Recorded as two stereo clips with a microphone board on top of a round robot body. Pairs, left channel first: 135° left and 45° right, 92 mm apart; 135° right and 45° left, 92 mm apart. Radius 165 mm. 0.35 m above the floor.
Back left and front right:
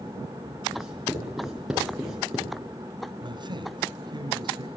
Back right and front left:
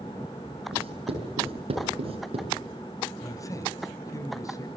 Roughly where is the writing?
Ahead left.